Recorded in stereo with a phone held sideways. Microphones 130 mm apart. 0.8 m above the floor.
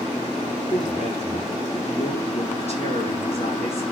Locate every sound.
0.7 s a man speaking: 50° left (ahead or behind), 9 m